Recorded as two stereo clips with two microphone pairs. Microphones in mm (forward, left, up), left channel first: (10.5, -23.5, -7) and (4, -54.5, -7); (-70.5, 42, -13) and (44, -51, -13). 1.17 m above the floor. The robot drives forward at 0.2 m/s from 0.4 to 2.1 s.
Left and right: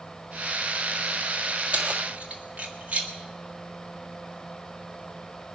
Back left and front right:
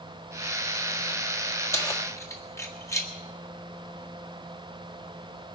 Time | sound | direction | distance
1.7 | keys jangling | 150° right | 1.6 m